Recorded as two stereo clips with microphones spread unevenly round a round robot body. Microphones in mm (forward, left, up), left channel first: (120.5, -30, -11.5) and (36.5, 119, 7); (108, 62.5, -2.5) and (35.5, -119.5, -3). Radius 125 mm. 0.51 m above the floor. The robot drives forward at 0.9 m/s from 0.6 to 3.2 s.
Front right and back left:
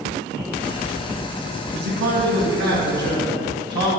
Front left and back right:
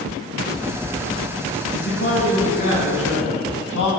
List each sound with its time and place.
1.7 s a man speaking: 115° left, 3.5 m; by 3.9 s 130° left, 4.5 m